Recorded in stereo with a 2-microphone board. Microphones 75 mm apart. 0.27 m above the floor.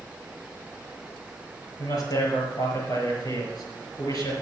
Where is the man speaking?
55° left (ahead or behind), 5 m.